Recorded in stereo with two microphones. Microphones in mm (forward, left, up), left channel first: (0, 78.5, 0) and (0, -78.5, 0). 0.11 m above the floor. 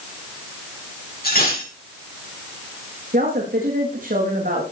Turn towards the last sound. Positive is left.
turn(degrees=-65)  # may be behind; listen again after turning